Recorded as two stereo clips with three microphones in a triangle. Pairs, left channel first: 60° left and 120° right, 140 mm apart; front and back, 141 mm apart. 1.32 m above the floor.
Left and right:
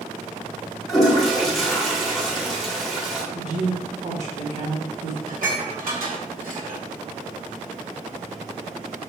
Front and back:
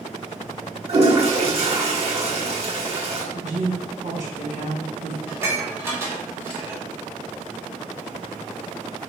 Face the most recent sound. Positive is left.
turn(degrees=-110)